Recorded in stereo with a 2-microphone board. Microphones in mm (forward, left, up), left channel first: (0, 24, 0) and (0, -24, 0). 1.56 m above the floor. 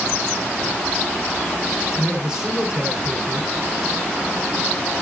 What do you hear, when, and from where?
2.0 s a man speaking: 10° right (ahead or behind), 4.5 m